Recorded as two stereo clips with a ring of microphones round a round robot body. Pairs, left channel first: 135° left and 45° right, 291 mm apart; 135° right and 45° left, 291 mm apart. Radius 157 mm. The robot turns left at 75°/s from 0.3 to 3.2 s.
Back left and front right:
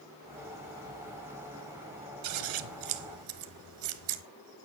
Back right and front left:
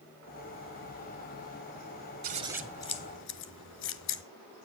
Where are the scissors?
15° right, 1.3 m; by 4.2 s 85° right, 1.3 m.